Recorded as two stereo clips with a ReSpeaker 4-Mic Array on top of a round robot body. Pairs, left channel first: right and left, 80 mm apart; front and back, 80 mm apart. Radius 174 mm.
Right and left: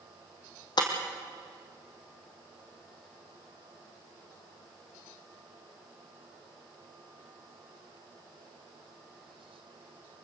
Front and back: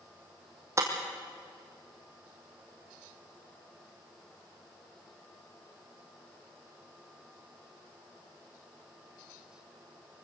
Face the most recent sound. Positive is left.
turn(degrees=-125)